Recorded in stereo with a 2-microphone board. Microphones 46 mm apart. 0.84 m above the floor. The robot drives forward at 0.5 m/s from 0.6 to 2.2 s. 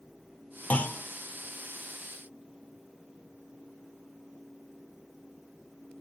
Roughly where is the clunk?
Left.